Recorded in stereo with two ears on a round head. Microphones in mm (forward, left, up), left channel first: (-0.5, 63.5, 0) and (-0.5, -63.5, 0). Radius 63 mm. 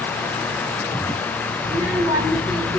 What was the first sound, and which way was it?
A child speaking, 20° right (ahead or behind).